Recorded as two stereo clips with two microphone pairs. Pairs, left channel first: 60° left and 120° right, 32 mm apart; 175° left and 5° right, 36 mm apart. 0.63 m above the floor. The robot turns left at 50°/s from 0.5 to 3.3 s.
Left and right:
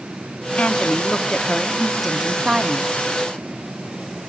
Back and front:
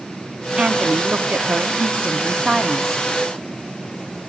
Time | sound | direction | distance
0.6 | a woman speaking | 35° left | 1.1 m